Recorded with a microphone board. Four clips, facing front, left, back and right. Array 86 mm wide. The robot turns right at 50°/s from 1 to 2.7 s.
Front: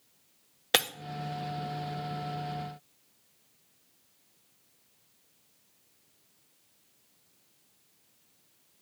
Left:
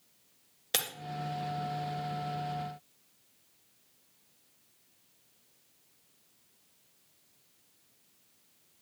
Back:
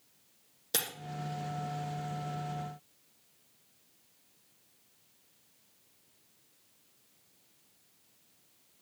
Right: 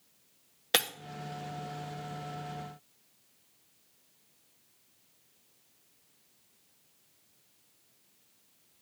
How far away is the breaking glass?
About 0.8 m.